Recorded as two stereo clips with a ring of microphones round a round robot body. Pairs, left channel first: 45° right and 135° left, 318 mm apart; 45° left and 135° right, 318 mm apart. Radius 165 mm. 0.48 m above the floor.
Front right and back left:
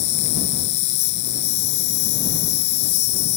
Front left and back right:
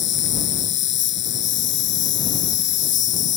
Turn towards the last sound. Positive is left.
turn(degrees=-10)